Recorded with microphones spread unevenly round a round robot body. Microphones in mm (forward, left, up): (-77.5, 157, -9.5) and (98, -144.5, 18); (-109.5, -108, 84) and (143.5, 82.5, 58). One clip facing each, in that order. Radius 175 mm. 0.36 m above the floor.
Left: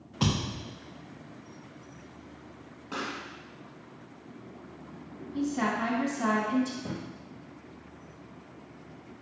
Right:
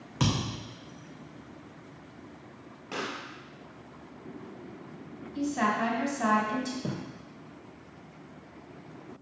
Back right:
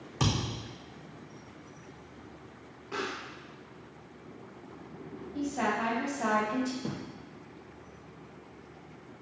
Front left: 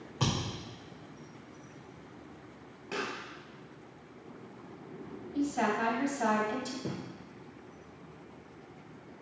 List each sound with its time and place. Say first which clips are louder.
0.2 s a thud: even, back right 2 dB; 90° right, 3 m
2.9 s a pop: even, back right 1 dB; 5° left, 2 m
5.3 s a woman speaking: even, front left 2 dB; 5° right, 2.5 m
6.8 s a thud: right 2 dB, back right 1 dB; 60° right, 2.5 m